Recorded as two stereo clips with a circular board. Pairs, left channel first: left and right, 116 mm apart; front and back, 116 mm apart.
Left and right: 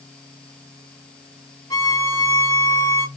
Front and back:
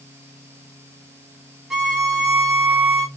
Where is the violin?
95° left, 0.9 m.